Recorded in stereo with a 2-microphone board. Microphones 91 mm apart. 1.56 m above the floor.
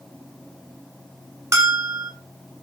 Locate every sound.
1.5 s a bell: 30° right (ahead or behind), 0.5 m